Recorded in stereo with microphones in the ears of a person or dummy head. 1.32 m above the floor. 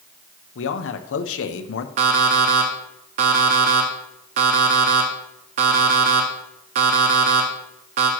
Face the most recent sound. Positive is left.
turn(degrees=-40)  # may be behind; listen again after turning